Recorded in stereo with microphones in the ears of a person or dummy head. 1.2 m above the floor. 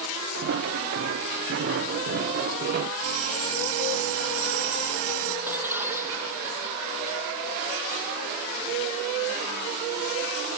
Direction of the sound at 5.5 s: 10° right (ahead or behind).